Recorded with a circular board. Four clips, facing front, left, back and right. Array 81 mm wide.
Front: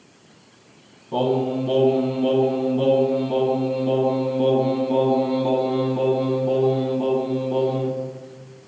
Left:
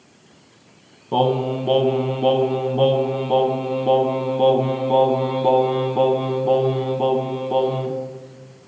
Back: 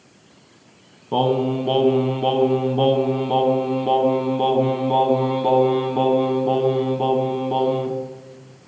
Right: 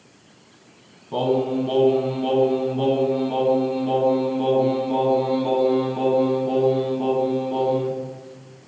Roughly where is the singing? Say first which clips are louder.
Left 2 dB, back 2 dB; behind left.